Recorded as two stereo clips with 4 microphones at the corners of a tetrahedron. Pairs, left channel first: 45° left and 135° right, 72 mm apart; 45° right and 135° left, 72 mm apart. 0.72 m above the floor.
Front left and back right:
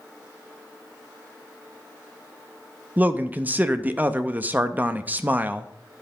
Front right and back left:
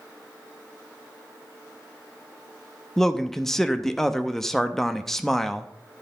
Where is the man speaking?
125° right, 0.6 m.